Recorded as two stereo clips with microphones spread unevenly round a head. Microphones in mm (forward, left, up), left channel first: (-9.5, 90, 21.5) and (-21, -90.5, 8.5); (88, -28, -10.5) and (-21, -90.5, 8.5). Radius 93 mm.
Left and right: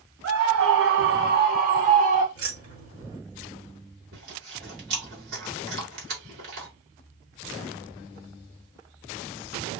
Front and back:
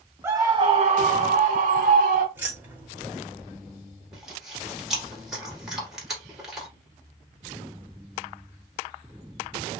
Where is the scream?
75° right, 0.6 m; by 2.2 s 145° right, 1.1 m.